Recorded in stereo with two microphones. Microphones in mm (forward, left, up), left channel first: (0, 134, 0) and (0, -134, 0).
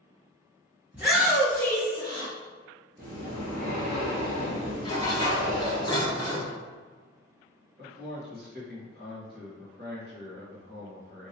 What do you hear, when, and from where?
0.9 s a shout: 5° right (ahead or behind), 1.5 m; by 2.3 s 20° left (ahead or behind), 1.5 m
3.0 s breathing: 35° right (ahead or behind), 1.4 m
4.8 s dishes clattering: 15° left (ahead or behind), 0.9 m
7.8 s a man speaking: 40° right (ahead or behind), 1.8 m